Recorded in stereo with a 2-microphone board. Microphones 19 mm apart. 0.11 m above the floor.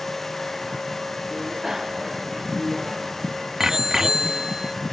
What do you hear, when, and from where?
1.3 s a bicycle bell: 25° right (ahead or behind); by 4.8 s 35° right (ahead or behind)